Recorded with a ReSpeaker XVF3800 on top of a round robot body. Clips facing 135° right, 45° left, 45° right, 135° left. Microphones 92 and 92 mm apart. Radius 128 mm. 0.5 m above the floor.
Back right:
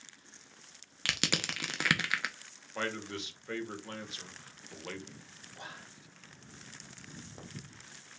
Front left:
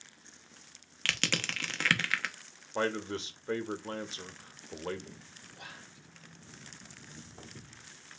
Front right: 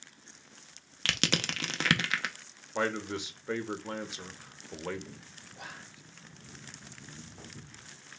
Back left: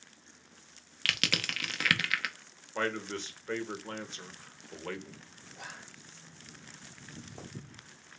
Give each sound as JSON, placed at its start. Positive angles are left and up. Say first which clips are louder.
{"t": 1.1, "sound": "crushing", "louder": "even, front right 3 dB", "azimuth_deg": -70, "distance_m": 0.8}
{"t": 2.8, "sound": "a man speaking", "louder": "front left 5 dB, front right 2 dB", "azimuth_deg": 25, "distance_m": 0.9}
{"t": 5.5, "sound": "whispering", "louder": "back right 3 dB, front right 1 dB", "azimuth_deg": -130, "distance_m": 0.8}
{"t": 7.0, "sound": "footsteps", "louder": "back right 2 dB, back left 4 dB", "azimuth_deg": 155, "distance_m": 0.8}